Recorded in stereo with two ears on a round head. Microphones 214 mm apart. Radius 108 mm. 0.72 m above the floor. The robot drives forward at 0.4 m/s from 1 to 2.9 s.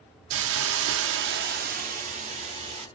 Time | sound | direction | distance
0.3 | a hiss | 60° right (ahead or behind) | 0.5 m